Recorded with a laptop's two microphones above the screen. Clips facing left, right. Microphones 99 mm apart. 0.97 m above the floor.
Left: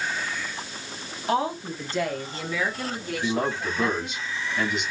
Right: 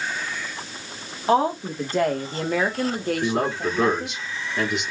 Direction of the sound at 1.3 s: 30° right (ahead or behind).